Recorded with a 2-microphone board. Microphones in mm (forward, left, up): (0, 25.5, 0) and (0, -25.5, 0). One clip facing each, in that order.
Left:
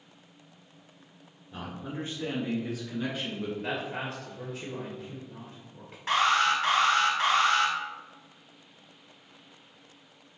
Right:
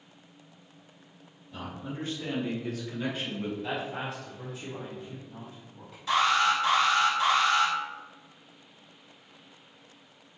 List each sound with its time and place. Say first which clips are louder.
1.5 s a man speaking: left 1 dB; 35° left (ahead or behind), 1.7 m; by 3.5 s 5° right (ahead or behind), 1.6 m
3.6 s a man speaking: even; 40° left (ahead or behind), 1.6 m
6.1 s an alarm: even; 45° left (ahead or behind), 1.6 m